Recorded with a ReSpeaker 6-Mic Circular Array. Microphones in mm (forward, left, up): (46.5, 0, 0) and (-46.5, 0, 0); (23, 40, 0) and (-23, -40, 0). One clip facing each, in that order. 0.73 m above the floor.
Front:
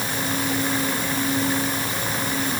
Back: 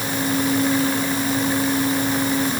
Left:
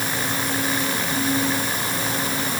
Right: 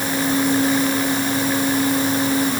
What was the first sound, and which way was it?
Only background noise.